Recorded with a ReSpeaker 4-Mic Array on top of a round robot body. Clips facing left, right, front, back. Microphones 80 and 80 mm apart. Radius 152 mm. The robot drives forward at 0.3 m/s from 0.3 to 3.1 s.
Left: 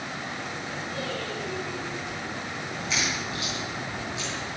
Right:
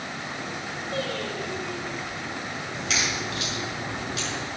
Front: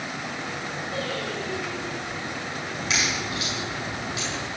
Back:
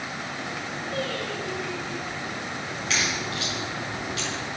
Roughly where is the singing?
Right.